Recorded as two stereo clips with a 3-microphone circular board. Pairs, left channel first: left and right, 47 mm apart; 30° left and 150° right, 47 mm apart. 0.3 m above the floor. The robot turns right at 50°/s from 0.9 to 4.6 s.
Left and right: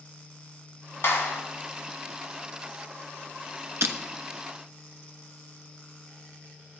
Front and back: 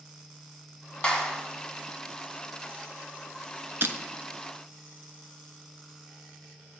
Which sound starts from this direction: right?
Breaking glass, at 3.8 s.